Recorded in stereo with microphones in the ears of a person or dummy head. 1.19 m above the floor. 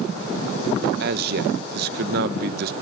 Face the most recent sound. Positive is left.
turn(degrees=-60)  # may be behind; listen again after turning